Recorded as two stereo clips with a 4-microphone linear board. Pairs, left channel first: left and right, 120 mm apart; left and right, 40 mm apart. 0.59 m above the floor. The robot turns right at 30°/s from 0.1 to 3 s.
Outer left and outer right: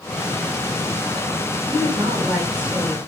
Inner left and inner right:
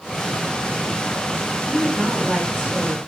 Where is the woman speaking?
40° right, 2.5 m; by 3.0 s straight ahead, 2.5 m.